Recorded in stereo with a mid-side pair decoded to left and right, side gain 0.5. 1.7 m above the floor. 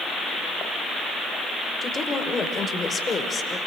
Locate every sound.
1.8 s a woman speaking: 30° left, 5.5 m; by 3.6 s 40° left, 5.5 m